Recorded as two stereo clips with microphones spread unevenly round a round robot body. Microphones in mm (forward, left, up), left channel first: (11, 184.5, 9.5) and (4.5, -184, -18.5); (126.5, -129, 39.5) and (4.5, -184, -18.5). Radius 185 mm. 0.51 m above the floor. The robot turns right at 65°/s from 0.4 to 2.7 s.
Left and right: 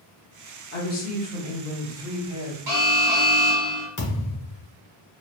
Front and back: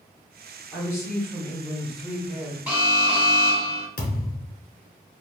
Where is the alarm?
105° right, 1.1 m; by 3.9 s 100° right, 1.1 m.